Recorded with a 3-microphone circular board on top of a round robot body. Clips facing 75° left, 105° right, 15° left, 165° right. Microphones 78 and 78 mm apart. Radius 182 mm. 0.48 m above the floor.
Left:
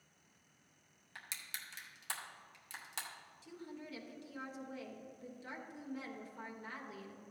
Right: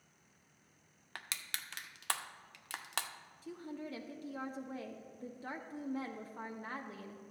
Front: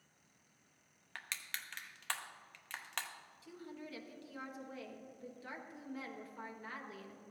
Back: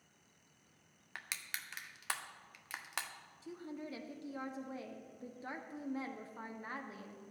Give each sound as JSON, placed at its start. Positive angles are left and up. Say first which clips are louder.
{"t": 1.1, "sound": "crushing", "louder": "right 4 dB, even", "azimuth_deg": -85, "distance_m": 0.7}
{"t": 3.4, "sound": "a woman speaking", "louder": "right 5 dB, back 4 dB", "azimuth_deg": -120, "distance_m": 1.1}